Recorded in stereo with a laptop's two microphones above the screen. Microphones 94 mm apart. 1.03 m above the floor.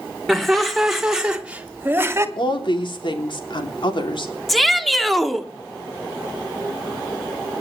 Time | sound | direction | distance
0.3 | laughter | 5° left (ahead or behind) | 4 m
2.4 | a woman speaking | 60° left (ahead or behind) | 3 m
4.5 | a shout | centre (ahead or behind) | 1.8 m